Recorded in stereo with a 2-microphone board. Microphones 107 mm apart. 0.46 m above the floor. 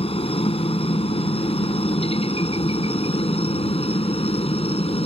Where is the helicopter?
70° left (ahead or behind); by 5.1 s 75° left (ahead or behind).